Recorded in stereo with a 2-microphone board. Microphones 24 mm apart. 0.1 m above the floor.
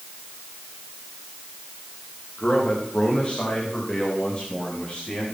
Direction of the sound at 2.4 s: 40° left (ahead or behind).